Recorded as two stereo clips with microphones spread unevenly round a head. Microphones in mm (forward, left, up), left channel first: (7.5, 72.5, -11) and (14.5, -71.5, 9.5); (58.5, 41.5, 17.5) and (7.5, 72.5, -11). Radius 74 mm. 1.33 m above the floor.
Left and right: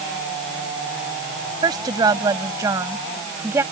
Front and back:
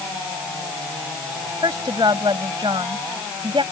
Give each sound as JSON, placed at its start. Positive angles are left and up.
{"t": 1.6, "sound": "a woman speaking", "azimuth_deg": -150}